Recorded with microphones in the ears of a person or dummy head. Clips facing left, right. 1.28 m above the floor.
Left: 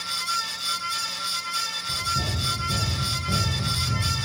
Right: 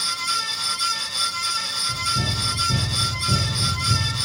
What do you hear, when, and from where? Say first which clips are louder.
1.9 s running footsteps: right 3 dB; 10° right (ahead or behind), 6 m; by 4.0 s 5° right (ahead or behind), 7.5 m